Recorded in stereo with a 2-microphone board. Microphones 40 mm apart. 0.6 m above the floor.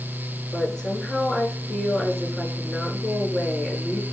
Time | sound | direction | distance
0.5 | a woman speaking | 15° left (ahead or behind) | 7 m